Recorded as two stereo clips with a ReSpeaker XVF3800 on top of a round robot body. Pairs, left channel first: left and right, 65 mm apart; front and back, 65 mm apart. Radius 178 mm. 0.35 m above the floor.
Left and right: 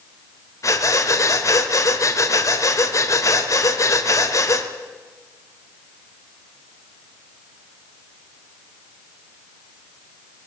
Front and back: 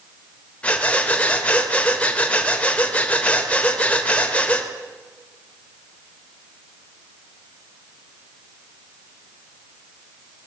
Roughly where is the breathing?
Ahead left.